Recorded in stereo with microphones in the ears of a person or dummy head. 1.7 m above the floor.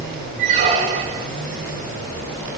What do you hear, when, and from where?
0.4 s a squeak: 40° right (ahead or behind), 1.6 m